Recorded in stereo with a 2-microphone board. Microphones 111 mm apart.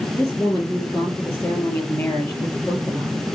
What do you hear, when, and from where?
0.2 s a woman speaking: 15° left (ahead or behind), 6 m